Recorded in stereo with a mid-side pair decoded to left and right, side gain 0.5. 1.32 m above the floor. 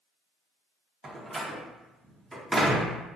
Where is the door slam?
20° right, 0.8 m.